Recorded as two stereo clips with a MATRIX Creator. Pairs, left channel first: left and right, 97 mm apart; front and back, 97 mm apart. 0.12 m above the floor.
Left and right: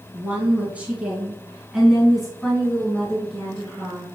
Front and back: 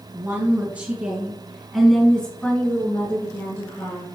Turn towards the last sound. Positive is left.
turn(degrees=25)